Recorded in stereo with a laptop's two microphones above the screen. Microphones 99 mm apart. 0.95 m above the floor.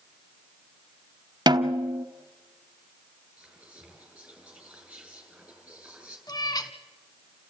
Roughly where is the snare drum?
Right.